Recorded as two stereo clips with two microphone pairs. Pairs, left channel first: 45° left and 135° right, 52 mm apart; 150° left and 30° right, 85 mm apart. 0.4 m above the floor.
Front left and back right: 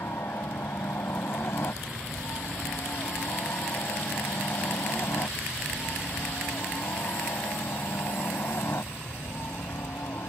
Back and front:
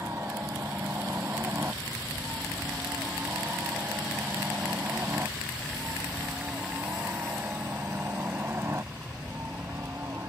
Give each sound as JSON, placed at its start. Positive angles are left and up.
{"t": 0.0, "sound": "a helicopter", "azimuth_deg": 25}